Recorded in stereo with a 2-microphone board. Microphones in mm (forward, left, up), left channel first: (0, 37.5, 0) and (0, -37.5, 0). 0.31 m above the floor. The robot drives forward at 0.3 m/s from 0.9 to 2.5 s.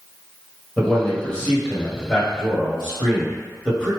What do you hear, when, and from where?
0.8 s a man speaking: 10° left (ahead or behind), 1.3 m